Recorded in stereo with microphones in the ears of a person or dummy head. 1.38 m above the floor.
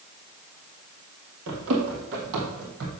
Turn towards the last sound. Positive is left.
turn(degrees=-65)  # may be behind; listen again after turning